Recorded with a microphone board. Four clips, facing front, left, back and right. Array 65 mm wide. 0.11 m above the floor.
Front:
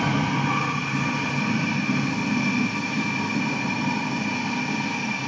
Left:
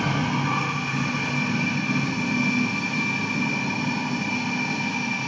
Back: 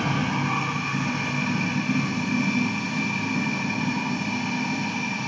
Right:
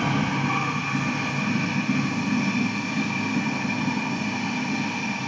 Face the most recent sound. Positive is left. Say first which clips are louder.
# even, front 2 dB
turn(degrees=20)